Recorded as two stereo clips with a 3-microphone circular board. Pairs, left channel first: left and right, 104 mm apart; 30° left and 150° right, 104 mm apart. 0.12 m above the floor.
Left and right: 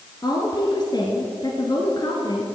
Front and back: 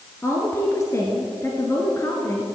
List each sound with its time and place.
0.2 s a woman speaking: 80° left, 1.5 m